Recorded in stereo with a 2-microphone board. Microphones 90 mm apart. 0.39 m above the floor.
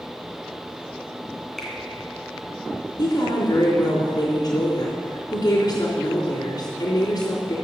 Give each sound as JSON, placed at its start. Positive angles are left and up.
{"t": 1.6, "sound": "a finger snap", "side_deg": 5, "distance_m": 2.5}
{"t": 3.0, "sound": "a woman speaking", "side_deg": 45, "distance_m": 3.5}